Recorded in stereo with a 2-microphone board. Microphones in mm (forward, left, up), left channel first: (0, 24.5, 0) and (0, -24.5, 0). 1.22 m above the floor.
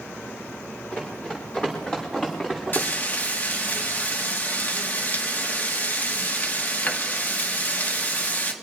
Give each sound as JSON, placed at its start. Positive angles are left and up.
{"t": 0.9, "sound": "running footsteps", "side_deg": 25, "distance_m": 7.0}
{"t": 2.7, "sound": "frying", "side_deg": 40, "distance_m": 1.5}